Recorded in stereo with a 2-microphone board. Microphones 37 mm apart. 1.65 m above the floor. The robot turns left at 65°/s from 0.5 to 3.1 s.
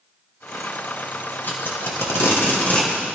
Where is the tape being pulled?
55° left (ahead or behind), 1.7 m; by 3.1 s 20° left (ahead or behind), 1.7 m.